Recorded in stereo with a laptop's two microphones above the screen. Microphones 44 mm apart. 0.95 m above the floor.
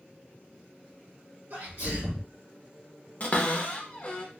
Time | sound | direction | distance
1.5 | a sneeze | 75° right (ahead or behind) | 1.4 m
3.2 | a cupboard door | 35° left (ahead or behind) | 0.6 m